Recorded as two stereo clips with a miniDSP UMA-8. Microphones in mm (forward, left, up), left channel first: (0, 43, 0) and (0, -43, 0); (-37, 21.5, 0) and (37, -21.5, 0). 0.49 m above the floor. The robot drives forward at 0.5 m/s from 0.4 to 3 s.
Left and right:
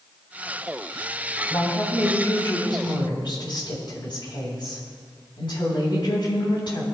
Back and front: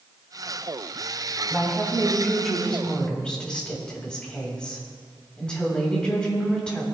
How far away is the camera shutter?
I don't hear a camera shutter.